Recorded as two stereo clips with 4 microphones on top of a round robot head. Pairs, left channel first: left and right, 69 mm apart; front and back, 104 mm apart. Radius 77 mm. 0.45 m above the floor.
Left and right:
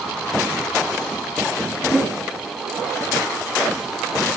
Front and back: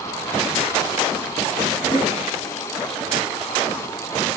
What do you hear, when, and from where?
1.9 s a whoosh: 15° left, 2.5 m